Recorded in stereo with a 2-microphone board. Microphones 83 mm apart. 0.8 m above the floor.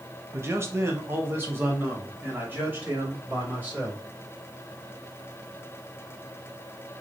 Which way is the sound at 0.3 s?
30° right (ahead or behind).